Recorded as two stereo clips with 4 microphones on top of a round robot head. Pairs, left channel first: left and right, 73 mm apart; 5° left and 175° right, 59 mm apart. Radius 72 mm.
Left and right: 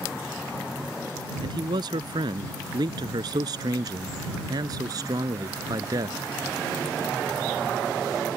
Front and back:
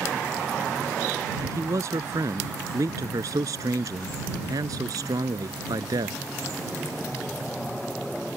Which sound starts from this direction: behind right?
A man speaking, at 1.4 s.